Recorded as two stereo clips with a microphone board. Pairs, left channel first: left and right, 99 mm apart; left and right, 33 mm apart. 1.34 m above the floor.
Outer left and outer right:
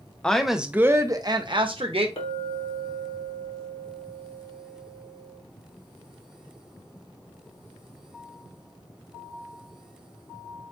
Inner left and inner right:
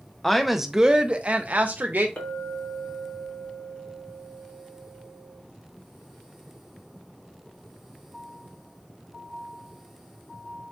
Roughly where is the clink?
Left.